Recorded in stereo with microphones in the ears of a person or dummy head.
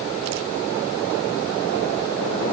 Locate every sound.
Only background noise.